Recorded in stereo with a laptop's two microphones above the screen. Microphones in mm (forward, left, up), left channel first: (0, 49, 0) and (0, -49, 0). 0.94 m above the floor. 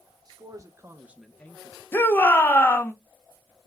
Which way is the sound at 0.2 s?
40° right (ahead or behind).